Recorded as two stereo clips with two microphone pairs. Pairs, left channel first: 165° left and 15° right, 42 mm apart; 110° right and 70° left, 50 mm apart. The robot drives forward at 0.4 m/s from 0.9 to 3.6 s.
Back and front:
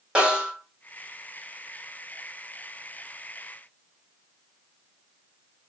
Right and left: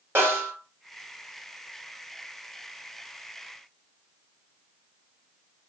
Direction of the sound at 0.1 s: 55° left.